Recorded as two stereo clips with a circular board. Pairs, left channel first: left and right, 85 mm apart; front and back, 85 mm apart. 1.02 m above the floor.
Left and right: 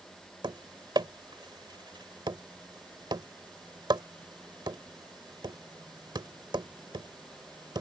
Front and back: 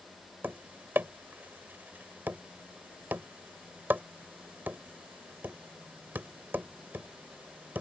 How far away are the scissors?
No scissors in this recording.